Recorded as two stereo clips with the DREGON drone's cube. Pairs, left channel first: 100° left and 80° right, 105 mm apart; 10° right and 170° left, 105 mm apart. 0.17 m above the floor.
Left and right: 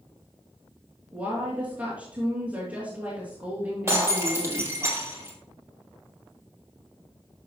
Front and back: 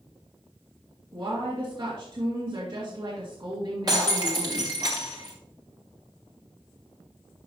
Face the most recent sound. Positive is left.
turn(degrees=-140)